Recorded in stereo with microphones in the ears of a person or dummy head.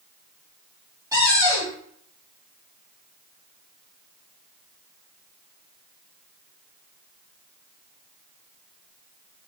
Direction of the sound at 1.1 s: 20° right (ahead or behind).